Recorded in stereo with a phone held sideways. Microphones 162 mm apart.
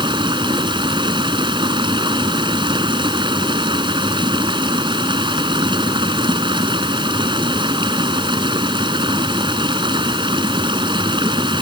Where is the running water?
30° right (ahead or behind).